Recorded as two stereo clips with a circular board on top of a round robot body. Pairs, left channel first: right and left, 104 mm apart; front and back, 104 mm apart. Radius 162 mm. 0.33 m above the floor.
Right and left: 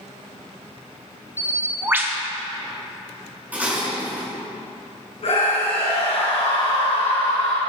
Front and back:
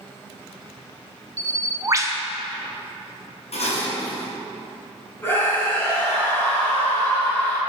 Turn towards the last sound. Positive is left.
turn(degrees=-70)